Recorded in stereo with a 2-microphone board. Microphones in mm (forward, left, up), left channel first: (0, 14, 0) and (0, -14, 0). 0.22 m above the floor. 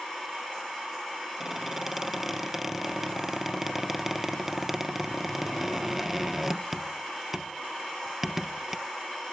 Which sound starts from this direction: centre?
A squeak, at 1.4 s.